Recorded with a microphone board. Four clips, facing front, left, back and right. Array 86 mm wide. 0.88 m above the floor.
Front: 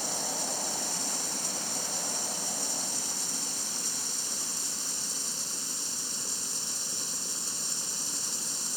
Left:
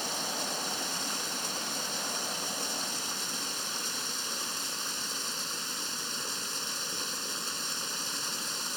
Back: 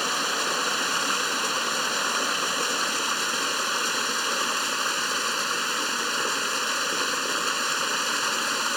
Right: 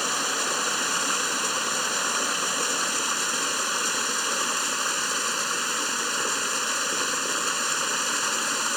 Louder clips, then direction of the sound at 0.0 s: Right 8 dB, back 10 dB; 140° right.